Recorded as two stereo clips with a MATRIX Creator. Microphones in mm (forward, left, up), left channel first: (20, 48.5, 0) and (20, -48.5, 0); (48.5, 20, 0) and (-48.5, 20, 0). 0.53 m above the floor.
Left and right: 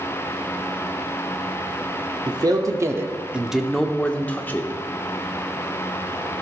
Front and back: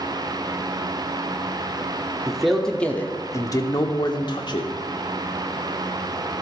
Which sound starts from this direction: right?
A man speaking, at 2.3 s.